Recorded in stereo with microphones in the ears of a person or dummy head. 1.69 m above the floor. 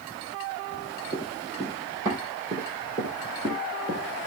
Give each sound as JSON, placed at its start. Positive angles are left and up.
{"t": 1.1, "sound": "running footsteps", "side_deg": -30, "distance_m": 4.5}